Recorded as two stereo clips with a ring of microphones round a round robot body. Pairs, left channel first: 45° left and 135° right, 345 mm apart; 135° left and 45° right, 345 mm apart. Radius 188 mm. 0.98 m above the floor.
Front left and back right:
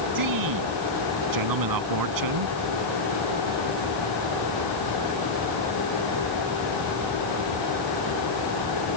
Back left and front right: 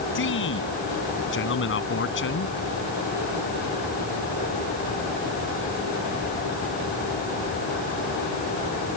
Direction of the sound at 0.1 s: 165° right.